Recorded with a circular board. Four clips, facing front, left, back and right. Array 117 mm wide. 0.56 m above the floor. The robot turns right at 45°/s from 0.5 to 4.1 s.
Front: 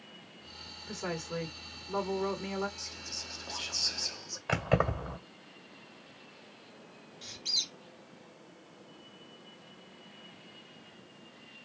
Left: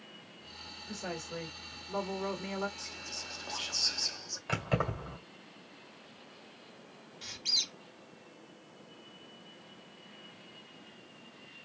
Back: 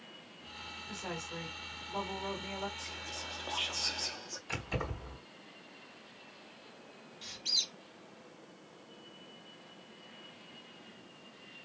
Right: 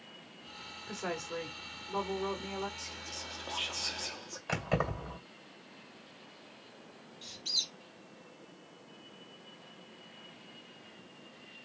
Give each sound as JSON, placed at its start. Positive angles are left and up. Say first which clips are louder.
{"t": 0.9, "sound": "a woman speaking", "louder": "right 2 dB, front 6 dB", "azimuth_deg": -50, "distance_m": 1.9}
{"t": 2.8, "sound": "whispering", "louder": "right 1 dB, back 3 dB", "azimuth_deg": 180, "distance_m": 0.8}
{"t": 4.5, "sound": "keys jangling", "louder": "even, front 10 dB", "azimuth_deg": -10, "distance_m": 1.8}
{"t": 7.2, "sound": "a squeak", "louder": "left 3 dB, front 1 dB", "azimuth_deg": 95, "distance_m": 1.3}